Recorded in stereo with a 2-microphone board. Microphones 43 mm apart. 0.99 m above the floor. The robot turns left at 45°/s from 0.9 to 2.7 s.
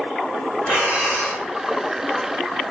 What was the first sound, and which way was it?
Breathing, 75° left (ahead or behind).